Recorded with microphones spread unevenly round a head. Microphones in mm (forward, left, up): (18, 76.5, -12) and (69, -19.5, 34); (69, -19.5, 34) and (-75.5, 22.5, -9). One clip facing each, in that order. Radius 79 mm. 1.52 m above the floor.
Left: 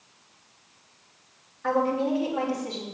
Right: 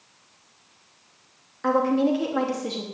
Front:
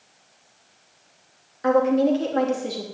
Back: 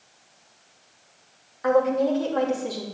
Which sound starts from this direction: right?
A woman speaking, at 1.6 s.